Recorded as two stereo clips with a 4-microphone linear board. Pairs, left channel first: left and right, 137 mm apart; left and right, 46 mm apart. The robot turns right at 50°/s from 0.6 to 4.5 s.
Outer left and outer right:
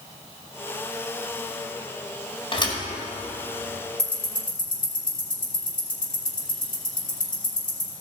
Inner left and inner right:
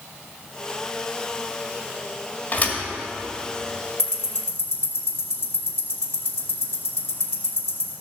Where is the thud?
40° left (ahead or behind), 2.0 m; by 2.8 s 25° left (ahead or behind), 2.0 m.